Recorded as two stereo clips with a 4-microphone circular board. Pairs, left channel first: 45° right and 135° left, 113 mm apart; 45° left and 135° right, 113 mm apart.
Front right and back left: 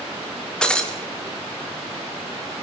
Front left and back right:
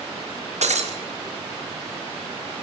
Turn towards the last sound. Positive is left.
turn(degrees=-125)